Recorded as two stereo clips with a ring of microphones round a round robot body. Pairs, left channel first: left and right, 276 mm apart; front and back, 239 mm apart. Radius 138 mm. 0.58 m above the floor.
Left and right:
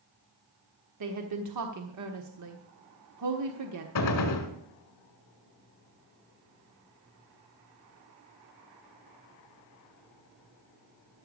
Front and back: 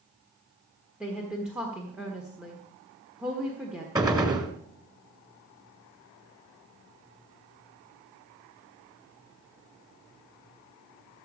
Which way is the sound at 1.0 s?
95° right.